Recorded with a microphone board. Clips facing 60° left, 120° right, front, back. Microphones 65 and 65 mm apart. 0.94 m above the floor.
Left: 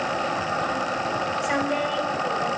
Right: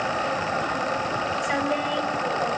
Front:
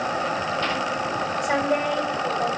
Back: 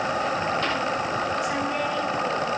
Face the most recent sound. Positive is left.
turn(degrees=-30)